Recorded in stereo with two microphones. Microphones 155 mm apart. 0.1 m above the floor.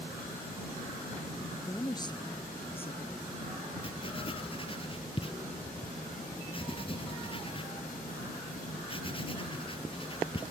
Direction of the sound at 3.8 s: 35° left (ahead or behind).